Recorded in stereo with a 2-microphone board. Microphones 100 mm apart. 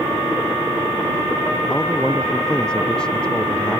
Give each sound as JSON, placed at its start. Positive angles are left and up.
{"t": 1.7, "sound": "a man speaking", "side_deg": 5}